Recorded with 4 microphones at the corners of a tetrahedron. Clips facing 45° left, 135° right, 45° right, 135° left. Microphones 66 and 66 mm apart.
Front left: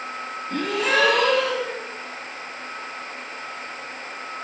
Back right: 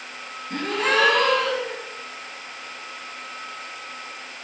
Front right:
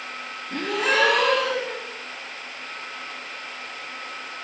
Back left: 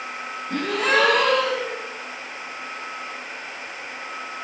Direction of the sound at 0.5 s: 175° left.